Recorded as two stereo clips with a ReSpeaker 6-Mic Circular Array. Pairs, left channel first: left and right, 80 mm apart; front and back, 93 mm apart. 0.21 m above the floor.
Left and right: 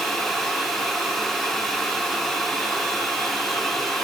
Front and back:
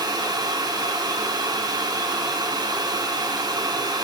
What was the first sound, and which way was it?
Only background noise.